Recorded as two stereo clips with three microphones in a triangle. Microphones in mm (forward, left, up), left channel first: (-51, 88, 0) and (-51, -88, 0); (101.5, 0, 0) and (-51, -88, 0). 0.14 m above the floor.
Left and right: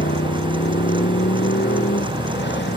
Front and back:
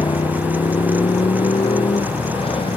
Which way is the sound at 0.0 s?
90° left.